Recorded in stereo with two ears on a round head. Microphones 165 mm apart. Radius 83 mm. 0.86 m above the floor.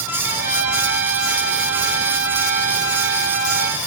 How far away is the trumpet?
About 4 m.